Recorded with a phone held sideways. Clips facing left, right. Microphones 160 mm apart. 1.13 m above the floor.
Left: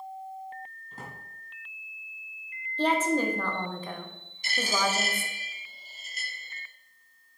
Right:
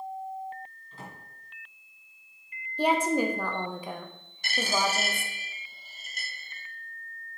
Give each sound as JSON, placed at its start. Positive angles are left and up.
{"t": 0.9, "sound": "a drawer", "side_deg": 45, "distance_m": 3.0}
{"t": 2.8, "sound": "a woman speaking", "side_deg": -10, "distance_m": 0.9}
{"t": 4.4, "sound": "a dropped coin", "side_deg": -60, "distance_m": 2.0}